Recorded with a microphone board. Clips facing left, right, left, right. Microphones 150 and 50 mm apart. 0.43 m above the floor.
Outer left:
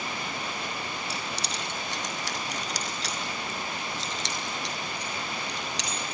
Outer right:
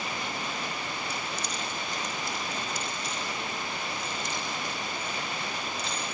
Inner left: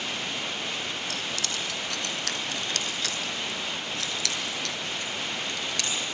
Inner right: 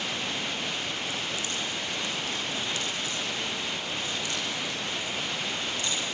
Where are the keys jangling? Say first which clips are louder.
Even, even; 80° left, 3 m; by 6.0 s 85° left, 6 m.